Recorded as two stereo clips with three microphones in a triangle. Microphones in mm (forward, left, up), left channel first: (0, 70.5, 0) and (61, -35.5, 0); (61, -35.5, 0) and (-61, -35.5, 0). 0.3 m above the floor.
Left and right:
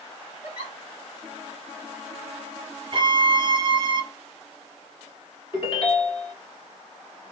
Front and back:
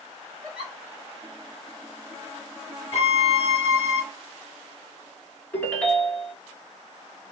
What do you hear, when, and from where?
0.4 s a giggle: 90° left, 1.9 m
2.9 s a violin: 20° right, 0.5 m
5.5 s a ringtone: 75° left, 1.4 m